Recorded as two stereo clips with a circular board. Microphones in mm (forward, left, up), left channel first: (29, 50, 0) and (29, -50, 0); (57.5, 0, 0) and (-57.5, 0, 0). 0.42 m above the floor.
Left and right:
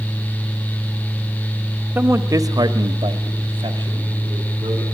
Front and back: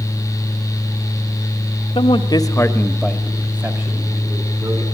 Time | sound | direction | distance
1.9 | a man speaking | 20° right | 1.7 m